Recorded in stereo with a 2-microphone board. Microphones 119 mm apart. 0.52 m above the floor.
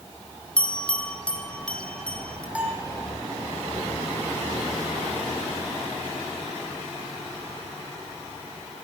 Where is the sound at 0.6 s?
10° left (ahead or behind), 3 m.